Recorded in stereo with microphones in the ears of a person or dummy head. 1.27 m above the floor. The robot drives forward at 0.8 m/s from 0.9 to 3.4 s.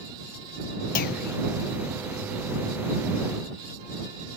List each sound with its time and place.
0.9 s a clunk: 50° left (ahead or behind), 1.2 m; by 1.4 s 65° left (ahead or behind), 1.0 m